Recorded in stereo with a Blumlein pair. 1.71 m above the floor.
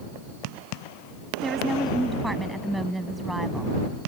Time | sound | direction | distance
1.4 | a woman speaking | 5° right | ?